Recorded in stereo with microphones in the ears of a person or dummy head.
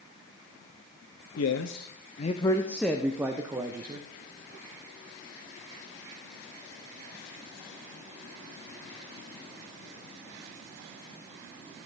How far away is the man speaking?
About 0.8 m.